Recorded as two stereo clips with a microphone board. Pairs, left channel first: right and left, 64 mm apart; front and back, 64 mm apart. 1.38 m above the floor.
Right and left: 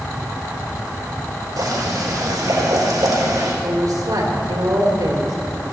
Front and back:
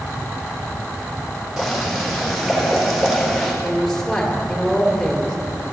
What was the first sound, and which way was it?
Boiling, 95° left.